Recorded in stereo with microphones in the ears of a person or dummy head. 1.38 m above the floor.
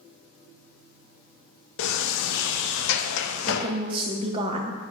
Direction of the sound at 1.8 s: 65° left (ahead or behind).